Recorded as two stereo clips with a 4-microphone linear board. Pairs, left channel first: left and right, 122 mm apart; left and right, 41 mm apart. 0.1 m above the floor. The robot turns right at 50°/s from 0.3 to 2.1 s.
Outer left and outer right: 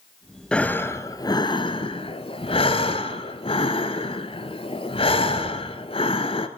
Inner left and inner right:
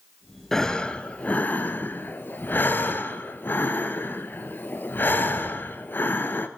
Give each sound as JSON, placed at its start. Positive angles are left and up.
{"t": 0.5, "sound": "breathing", "azimuth_deg": 10, "distance_m": 0.8}